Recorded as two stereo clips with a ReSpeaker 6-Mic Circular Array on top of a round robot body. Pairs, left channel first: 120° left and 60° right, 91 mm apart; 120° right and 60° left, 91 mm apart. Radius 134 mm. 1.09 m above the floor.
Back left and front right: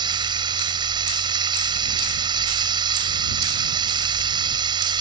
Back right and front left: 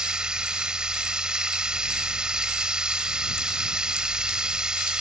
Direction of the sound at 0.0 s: 20° right.